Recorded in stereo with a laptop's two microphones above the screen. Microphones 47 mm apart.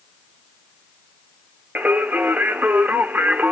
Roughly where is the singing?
Right.